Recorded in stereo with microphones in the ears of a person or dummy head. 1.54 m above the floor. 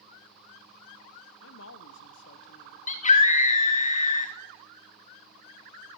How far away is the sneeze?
No sneeze in this recording.